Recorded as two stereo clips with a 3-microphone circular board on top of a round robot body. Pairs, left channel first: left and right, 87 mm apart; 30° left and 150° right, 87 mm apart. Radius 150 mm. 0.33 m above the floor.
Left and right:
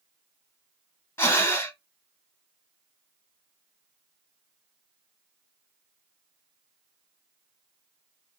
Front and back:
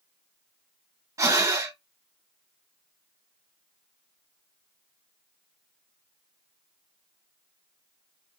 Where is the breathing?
155° left, 1.4 m.